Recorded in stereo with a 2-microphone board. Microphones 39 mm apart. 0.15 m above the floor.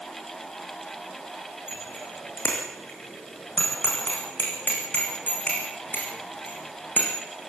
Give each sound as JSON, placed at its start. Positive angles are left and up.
{"t": 1.7, "sound": "a bicycle bell", "side_deg": 65, "distance_m": 8.5}